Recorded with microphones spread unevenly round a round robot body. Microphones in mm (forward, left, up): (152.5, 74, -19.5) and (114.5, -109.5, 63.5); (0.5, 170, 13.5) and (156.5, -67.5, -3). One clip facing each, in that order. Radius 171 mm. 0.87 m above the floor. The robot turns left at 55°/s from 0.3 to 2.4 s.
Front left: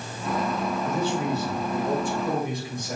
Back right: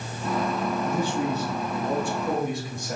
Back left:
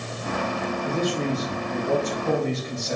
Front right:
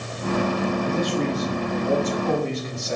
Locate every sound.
0.8 s a man speaking: 125° right, 3 m; by 3.0 s 150° left, 3 m